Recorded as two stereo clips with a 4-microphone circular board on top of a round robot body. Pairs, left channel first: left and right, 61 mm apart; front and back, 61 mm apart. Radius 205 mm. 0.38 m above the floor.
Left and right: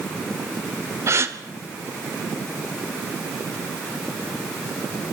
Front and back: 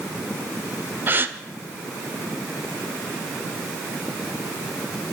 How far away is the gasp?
About 1.7 m.